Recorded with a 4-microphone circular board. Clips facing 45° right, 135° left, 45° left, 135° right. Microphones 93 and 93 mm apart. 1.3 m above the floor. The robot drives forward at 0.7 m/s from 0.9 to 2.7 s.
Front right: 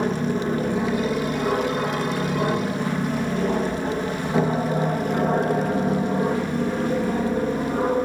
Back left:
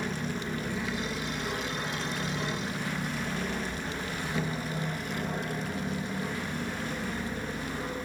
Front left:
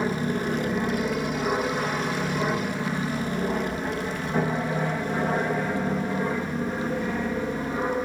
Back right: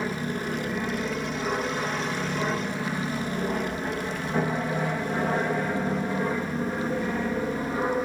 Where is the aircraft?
30° right; by 8.0 s 50° right.